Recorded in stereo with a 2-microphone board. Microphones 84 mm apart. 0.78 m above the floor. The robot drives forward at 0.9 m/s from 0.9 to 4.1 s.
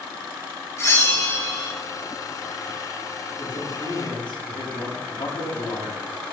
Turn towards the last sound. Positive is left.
turn(degrees=70)  # may be behind; listen again after turning